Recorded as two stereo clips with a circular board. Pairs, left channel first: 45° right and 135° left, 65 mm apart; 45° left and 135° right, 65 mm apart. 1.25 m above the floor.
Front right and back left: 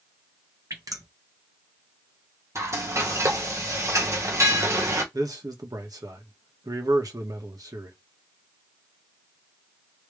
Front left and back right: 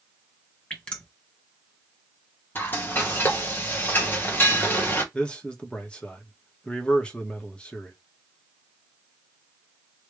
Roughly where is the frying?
Left.